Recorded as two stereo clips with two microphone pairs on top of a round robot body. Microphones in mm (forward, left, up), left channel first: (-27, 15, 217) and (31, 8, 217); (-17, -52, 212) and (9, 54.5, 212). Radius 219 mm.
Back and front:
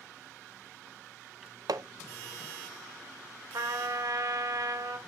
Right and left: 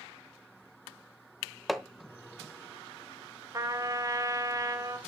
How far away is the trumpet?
About 2 m.